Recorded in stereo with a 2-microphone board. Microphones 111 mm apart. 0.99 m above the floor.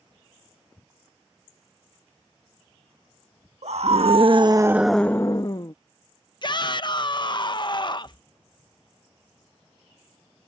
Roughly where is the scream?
Right.